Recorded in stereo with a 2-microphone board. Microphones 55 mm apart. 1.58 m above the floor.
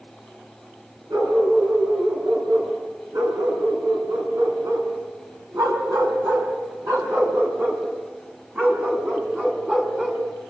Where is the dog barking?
80° right, 7.5 m; by 10.2 s 15° right (ahead or behind), 5 m.